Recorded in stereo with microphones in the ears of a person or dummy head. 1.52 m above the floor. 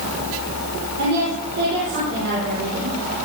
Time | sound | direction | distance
1.0 | a woman speaking | 65° right (ahead or behind) | 5.5 m